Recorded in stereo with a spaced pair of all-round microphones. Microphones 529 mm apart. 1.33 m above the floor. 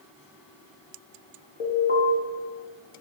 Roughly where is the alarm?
Left.